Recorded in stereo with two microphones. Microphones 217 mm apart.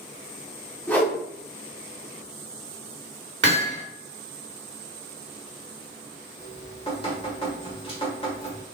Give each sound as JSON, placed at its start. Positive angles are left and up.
{"t": 0.9, "sound": "a whoosh", "side_deg": 10, "distance_m": 1.0}
{"t": 3.4, "sound": "hammering", "side_deg": -60, "distance_m": 1.4}
{"t": 6.4, "sound": "dripping", "side_deg": 25, "distance_m": 1.4}